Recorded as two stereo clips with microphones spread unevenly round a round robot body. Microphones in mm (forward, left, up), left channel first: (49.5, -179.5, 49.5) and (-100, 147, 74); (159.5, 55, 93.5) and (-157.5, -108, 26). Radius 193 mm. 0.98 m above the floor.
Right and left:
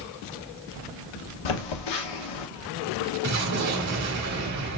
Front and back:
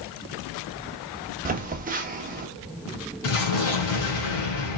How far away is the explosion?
About 2 m.